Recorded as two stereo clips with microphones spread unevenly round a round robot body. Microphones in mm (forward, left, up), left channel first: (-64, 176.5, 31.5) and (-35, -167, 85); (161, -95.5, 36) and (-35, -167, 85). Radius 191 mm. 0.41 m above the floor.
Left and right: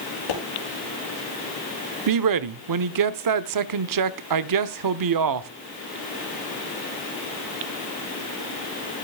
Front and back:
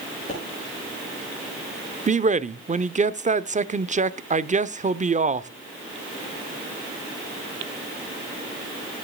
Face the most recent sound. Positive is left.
turn(degrees=-100)